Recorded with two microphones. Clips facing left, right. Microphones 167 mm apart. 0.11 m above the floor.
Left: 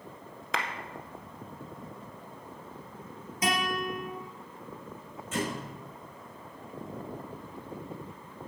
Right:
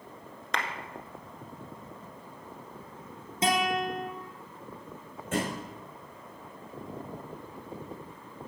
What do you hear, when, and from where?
0.5 s a clap: 5° left (ahead or behind), 1.2 m
3.4 s a guitar: 30° right (ahead or behind), 3 m
5.3 s a thud: 55° right (ahead or behind), 4 m